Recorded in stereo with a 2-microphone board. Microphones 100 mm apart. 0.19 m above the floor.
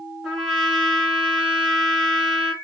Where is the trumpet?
Centre (ahead or behind), 1.7 m.